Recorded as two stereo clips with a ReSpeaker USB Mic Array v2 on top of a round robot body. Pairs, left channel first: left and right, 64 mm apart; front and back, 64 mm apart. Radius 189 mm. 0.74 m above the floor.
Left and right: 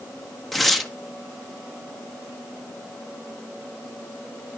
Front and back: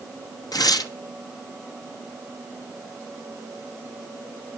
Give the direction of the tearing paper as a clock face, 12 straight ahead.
12 o'clock.